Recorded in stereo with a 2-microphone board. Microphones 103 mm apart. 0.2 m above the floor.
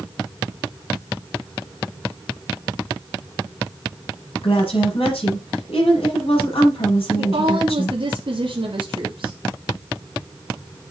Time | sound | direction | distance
4.4 | a woman speaking | 75° left (ahead or behind) | 6 m
7.2 | a woman speaking | 60° right (ahead or behind) | 1.9 m